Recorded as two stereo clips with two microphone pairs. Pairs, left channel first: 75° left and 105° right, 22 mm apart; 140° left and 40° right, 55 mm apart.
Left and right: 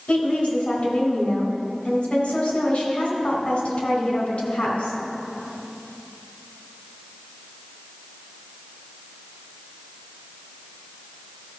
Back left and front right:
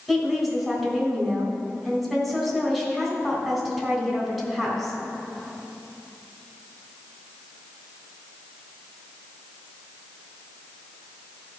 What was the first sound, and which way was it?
A woman speaking, 55° left.